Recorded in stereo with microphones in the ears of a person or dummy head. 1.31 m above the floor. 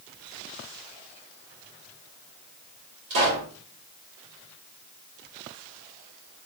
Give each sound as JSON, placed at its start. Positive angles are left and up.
{"t": 3.1, "sound": "a pop", "side_deg": -70, "distance_m": 1.8}